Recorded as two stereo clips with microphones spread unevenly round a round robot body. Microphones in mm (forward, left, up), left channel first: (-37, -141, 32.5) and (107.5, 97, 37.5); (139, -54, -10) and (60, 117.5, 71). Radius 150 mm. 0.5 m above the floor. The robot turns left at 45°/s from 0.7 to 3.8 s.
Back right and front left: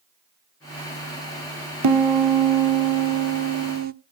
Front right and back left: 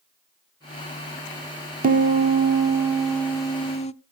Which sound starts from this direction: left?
A piano, at 1.8 s.